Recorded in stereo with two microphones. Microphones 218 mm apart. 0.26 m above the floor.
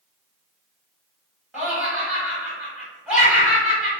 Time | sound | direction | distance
1.5 | laughter | 5° right (ahead or behind) | 1.6 m